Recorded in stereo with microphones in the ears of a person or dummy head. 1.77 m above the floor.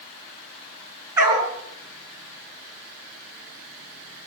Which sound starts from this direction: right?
A dog barking, at 1.2 s.